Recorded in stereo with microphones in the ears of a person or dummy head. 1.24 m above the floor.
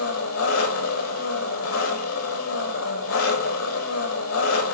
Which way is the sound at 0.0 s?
75° left (ahead or behind).